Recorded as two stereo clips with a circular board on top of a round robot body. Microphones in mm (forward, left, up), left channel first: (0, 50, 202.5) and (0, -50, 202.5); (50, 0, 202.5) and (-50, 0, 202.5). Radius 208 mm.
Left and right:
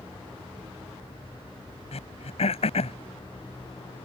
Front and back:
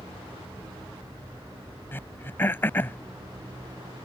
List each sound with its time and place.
1.9 s throat clearing: 70° left